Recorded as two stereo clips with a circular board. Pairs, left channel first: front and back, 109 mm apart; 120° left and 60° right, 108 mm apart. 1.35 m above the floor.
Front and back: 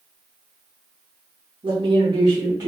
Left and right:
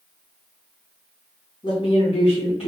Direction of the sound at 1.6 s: 155° left.